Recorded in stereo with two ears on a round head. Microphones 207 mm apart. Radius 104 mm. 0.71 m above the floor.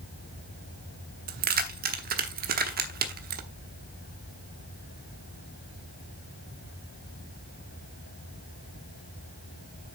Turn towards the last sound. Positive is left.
turn(degrees=-40)  # may be behind; listen again after turning